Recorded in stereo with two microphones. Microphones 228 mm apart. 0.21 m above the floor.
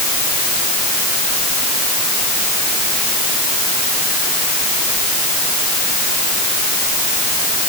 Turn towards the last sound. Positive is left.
No sound to turn to.